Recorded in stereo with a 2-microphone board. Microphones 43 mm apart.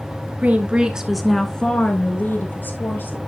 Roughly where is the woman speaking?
Right.